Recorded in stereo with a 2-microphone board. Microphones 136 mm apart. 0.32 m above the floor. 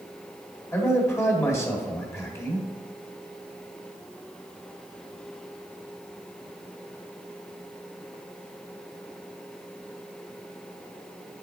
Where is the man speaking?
20° left (ahead or behind), 1.6 m.